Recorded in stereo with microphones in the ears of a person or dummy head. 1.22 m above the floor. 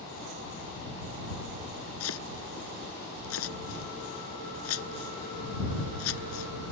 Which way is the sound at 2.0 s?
85° left.